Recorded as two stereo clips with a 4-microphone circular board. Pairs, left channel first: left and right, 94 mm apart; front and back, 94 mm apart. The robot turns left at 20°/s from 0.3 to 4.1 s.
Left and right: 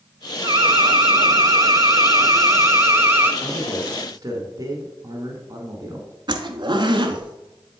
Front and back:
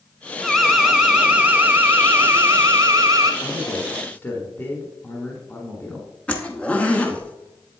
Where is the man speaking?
45° right, 1.3 m; by 6.1 s 60° right, 1.3 m.